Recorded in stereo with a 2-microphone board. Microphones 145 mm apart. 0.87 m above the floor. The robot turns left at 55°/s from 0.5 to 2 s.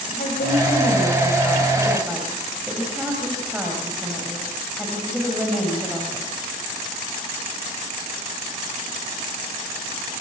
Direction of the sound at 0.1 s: 75° left.